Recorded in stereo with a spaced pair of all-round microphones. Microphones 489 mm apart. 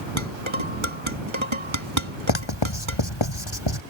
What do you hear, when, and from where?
0.2 s dishes clattering: 75° right (ahead or behind)
2.3 s writing: 60° left (ahead or behind)